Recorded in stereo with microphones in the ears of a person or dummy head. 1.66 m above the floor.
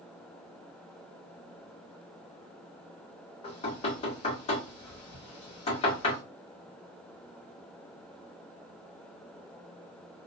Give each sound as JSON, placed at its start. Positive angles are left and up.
{"t": 3.4, "sound": "knocking", "side_deg": 35, "distance_m": 1.8}